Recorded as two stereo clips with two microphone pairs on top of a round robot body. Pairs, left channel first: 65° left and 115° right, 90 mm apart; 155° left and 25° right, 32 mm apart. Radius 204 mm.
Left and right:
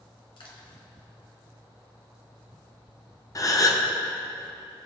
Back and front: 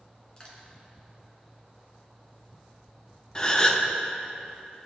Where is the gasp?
100° left, 1.5 m.